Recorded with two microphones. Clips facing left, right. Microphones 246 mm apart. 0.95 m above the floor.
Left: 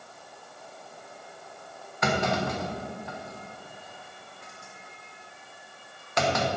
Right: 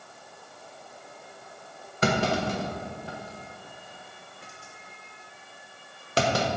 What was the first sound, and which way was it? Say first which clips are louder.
A clunk: right 2 dB; 35° right (ahead or behind).